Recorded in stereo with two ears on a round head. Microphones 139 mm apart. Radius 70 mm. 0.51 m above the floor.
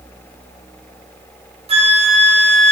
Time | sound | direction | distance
1.7 | a flute | 40° right (ahead or behind) | 5.5 m